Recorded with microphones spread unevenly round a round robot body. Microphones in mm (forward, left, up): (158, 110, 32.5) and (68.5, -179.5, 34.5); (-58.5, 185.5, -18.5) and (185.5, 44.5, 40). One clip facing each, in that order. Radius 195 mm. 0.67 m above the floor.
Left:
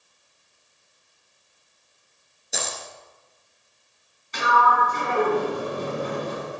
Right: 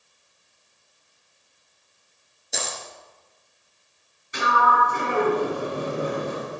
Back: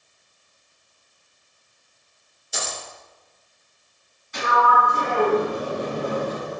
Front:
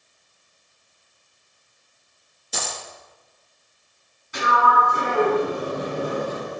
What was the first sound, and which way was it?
A dropped coin, 15° right.